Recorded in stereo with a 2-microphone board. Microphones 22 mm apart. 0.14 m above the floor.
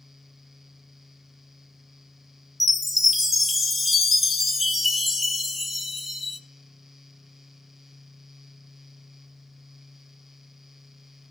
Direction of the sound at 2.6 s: 5° right (ahead or behind).